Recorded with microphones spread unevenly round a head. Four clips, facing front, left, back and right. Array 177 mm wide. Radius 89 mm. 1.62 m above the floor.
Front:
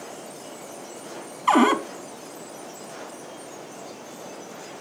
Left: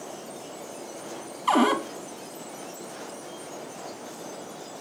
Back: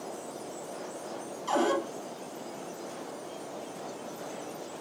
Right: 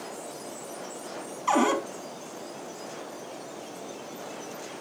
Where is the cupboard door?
15° left, 3 m.